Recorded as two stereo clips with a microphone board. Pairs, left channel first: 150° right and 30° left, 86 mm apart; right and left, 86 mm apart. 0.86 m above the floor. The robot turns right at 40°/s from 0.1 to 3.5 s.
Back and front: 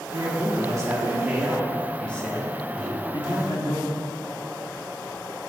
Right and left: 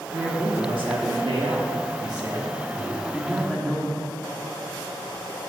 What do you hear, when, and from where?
0.1 s a man speaking: 55° left, 1.4 m; by 3.8 s 170° right, 1.4 m
2.8 s a microwave: 135° left, 3 m; by 2.9 s 140° left, 3 m